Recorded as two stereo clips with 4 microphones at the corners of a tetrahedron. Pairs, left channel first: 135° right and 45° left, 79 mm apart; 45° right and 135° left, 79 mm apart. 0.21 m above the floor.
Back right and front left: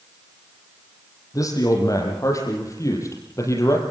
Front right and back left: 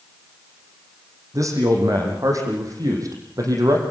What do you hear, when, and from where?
1.3 s a man speaking: straight behind, 7.5 m; by 3.8 s 175° left, 6 m